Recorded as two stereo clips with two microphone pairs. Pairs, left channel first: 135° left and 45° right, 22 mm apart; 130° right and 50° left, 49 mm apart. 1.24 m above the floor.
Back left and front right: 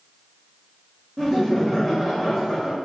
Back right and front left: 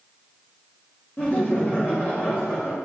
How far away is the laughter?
About 0.6 m.